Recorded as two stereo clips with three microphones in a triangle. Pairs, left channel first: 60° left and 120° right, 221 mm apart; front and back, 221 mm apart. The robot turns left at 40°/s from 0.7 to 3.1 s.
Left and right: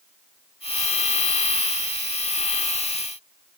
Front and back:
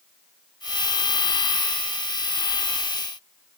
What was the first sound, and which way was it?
Only background noise.